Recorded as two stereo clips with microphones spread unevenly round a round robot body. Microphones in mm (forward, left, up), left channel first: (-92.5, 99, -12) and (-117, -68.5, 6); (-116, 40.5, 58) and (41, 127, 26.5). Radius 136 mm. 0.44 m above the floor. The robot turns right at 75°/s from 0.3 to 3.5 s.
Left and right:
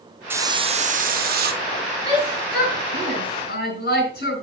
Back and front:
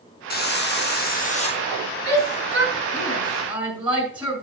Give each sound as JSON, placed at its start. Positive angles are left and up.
{"t": 0.3, "sound": "a hiss", "azimuth_deg": 180, "distance_m": 0.7}
{"t": 2.0, "sound": "a shout", "azimuth_deg": -15, "distance_m": 4.5}